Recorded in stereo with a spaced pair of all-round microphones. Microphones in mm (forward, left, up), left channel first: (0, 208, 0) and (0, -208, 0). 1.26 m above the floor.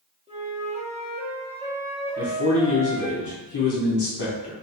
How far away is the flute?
About 0.8 m.